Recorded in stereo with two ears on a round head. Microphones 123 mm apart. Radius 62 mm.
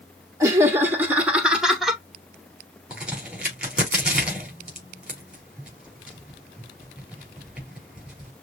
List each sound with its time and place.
0.4 s laughter: 20° right (ahead or behind), 0.9 m; by 2.0 s centre (ahead or behind), 1.1 m
2.9 s a crack: 10° right (ahead or behind), 4.5 m